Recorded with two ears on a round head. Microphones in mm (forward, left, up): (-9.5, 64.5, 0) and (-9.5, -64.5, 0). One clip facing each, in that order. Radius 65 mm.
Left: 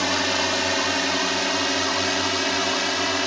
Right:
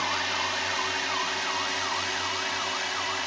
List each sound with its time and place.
0.0 s a drone: 55° left (ahead or behind); by 3.3 s 60° left (ahead or behind)